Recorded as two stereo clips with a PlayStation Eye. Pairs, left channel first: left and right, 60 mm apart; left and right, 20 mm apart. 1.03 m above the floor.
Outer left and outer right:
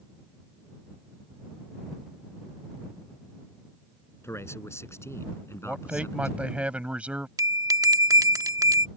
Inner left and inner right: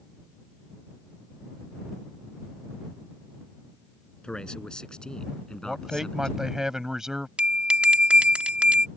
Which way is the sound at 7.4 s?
85° right.